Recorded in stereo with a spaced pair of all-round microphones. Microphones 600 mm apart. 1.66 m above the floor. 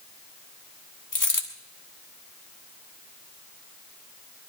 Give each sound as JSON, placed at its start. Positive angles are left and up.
{"t": 1.1, "sound": "a dropped coin", "side_deg": 30, "distance_m": 1.5}